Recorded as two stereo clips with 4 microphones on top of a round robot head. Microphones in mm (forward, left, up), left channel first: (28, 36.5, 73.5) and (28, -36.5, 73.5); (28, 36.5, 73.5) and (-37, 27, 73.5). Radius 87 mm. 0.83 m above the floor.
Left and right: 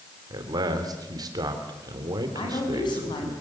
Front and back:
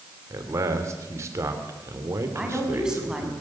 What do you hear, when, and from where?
0.3 s a man speaking: 125° right, 3 m
2.3 s a woman speaking: 110° left, 6 m